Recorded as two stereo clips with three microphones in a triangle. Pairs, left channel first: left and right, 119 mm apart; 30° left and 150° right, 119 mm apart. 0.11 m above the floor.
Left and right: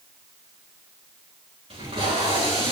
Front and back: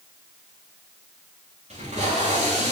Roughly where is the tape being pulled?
Behind right.